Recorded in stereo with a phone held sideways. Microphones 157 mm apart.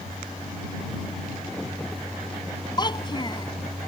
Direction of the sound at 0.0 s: Centre (ahead or behind).